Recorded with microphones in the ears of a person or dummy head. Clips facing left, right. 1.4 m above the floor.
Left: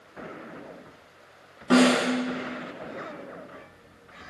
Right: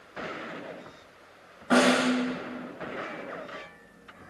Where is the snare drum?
55° left (ahead or behind), 6 m.